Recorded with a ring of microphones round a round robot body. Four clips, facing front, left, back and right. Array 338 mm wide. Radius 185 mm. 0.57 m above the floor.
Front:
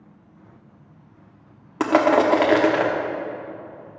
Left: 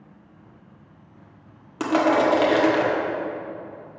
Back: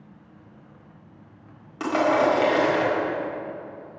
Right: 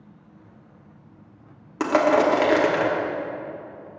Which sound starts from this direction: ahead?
Crushing, at 1.8 s.